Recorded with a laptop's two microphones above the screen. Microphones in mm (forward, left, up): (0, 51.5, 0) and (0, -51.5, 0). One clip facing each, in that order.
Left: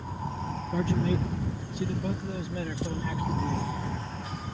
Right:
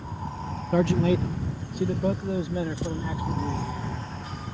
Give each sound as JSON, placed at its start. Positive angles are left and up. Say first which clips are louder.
{"t": 0.7, "sound": "a man speaking", "louder": "right 6 dB", "side_deg": -65}